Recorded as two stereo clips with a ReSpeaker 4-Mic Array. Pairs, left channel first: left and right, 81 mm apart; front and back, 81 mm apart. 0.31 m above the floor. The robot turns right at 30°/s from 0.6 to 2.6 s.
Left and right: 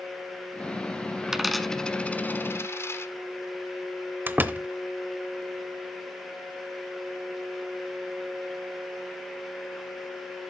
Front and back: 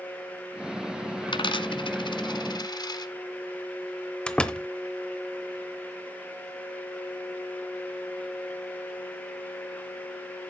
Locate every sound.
1.3 s a dropped coin: 5° right, 0.8 m; by 3.1 s 30° left, 0.8 m
4.3 s a door slam: 65° right, 0.8 m